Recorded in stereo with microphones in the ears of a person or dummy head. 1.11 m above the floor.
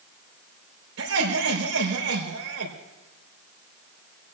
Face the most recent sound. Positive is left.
turn(degrees=-90)